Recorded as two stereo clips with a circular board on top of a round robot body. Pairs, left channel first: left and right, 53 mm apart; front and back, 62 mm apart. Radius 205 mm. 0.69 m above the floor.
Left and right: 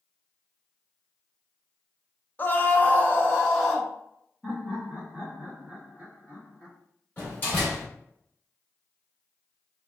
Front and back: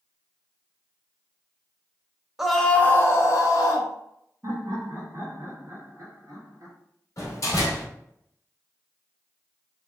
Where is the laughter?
155° right, 1.6 m.